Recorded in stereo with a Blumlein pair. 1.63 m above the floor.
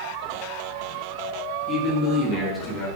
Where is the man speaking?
30° left, 1.6 m; by 2.9 s 25° left, 2.5 m.